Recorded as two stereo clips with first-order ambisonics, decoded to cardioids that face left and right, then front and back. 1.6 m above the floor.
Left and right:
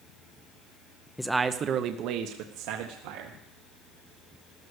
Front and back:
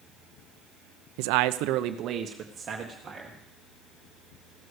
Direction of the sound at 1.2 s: 175° left.